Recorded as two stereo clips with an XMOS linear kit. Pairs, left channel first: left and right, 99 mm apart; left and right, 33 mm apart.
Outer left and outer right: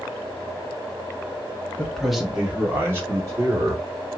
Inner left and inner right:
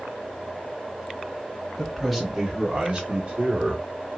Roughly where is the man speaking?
Centre.